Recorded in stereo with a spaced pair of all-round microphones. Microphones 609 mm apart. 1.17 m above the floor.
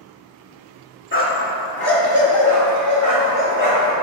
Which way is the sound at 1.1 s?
20° left (ahead or behind).